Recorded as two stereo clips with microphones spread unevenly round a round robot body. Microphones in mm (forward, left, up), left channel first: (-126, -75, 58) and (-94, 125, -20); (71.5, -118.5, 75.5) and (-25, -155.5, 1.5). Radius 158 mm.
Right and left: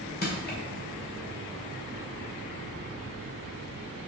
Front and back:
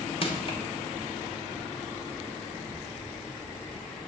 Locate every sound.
0.2 s crushing: 35° right, 2.5 m